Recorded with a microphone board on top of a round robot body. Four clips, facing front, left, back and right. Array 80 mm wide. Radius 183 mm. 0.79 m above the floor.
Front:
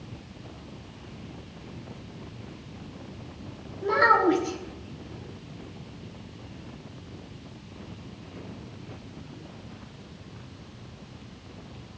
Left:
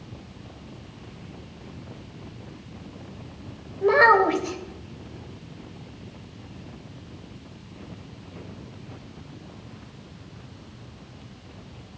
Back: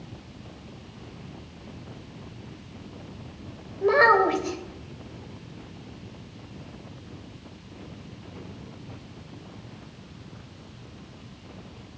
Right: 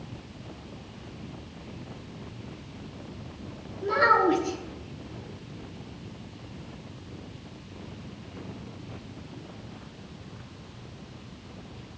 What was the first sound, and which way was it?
A child speaking, 130° left.